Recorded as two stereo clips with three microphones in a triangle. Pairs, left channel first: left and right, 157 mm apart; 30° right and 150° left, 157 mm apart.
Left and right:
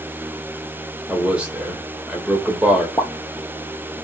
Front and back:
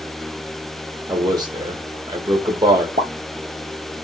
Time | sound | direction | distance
1.1 | a man speaking | 165° right | 1.0 m
3.0 | a pop | 155° left | 0.9 m